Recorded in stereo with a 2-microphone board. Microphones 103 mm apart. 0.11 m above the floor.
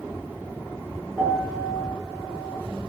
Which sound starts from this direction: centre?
A piano, at 1.2 s.